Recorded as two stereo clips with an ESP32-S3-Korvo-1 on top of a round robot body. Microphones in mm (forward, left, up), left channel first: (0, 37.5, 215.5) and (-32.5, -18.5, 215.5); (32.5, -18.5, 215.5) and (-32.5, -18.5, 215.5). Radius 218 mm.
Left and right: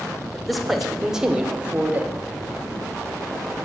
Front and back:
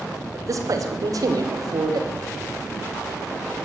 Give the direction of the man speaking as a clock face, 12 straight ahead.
7 o'clock.